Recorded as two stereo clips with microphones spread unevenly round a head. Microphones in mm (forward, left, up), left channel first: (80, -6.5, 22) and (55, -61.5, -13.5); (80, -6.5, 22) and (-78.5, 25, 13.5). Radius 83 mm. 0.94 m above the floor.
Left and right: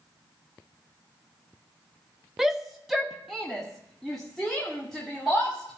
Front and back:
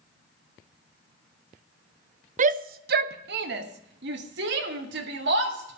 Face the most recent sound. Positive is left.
turn(degrees=160)